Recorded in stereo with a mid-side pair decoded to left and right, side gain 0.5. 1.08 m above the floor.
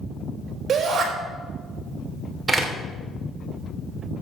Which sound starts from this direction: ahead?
A door slam, at 2.5 s.